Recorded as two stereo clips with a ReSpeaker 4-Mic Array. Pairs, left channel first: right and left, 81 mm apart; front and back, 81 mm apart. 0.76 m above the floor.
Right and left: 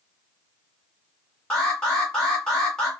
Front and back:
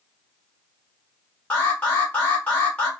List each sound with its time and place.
1.5 s an alarm: 35° right, 1.2 m